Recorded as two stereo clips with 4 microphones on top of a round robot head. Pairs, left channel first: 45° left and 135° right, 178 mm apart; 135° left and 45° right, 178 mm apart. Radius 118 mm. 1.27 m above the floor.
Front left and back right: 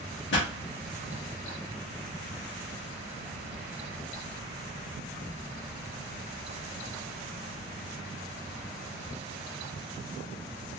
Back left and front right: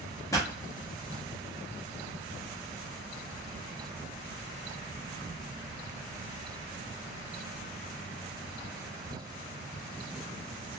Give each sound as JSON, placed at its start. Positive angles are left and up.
{"t": 0.3, "sound": "a pop", "azimuth_deg": 60, "distance_m": 0.9}